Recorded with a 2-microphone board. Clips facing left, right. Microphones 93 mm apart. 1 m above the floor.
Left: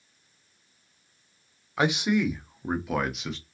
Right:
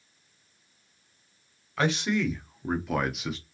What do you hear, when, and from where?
1.8 s a man speaking: 15° left (ahead or behind), 0.9 m; by 3.4 s 5° right (ahead or behind), 0.7 m